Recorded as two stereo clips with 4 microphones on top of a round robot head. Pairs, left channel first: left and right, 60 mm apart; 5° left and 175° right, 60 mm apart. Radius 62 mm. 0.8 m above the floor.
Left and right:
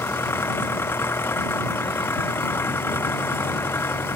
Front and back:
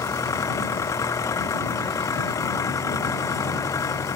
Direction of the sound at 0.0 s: 40° left.